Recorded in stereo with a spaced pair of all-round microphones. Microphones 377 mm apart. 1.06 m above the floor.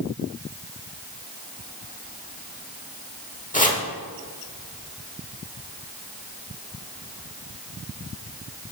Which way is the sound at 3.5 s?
20° left (ahead or behind).